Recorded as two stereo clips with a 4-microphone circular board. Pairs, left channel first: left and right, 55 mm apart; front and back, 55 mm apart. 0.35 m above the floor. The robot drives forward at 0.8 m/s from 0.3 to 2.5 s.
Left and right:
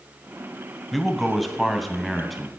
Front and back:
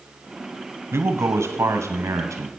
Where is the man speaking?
Straight behind, 1.3 m.